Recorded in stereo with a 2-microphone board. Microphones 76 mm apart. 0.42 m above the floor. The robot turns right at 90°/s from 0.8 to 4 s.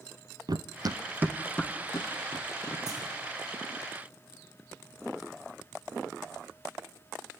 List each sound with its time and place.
0.5 s running footsteps: 60° right (ahead or behind), 0.7 m; by 2.8 s 55° left (ahead or behind), 3 m
2.9 s a clunk: 40° left (ahead or behind), 10 m; by 3.0 s 20° left (ahead or behind), 10 m